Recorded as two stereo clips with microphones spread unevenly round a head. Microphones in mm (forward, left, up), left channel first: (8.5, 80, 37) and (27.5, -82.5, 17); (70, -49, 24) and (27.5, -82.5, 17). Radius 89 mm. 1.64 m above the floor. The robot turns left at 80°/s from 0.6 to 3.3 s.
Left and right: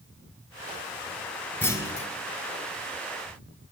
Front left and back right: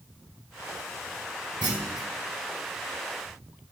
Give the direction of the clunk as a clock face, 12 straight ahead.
6 o'clock.